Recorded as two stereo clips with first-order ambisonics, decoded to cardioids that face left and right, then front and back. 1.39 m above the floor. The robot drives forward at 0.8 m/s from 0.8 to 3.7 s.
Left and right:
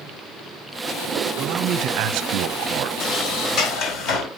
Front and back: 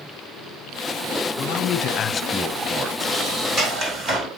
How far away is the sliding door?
About 1.5 m.